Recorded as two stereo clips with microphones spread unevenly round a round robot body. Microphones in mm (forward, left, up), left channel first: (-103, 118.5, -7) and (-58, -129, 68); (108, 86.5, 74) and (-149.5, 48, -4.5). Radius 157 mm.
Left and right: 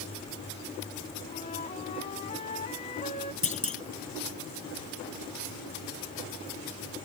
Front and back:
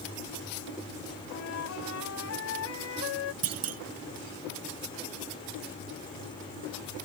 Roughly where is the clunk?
Behind.